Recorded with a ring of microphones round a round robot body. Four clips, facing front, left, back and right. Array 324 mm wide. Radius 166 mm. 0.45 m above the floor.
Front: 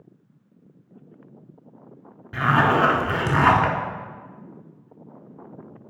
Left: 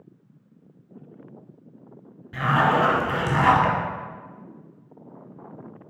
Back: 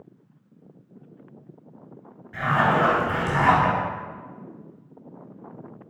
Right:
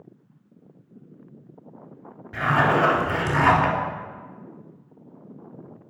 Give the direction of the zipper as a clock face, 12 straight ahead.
12 o'clock.